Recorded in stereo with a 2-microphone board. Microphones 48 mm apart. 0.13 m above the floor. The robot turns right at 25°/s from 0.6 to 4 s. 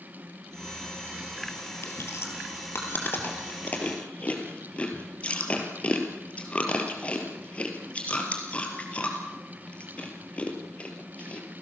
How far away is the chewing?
About 3.5 m.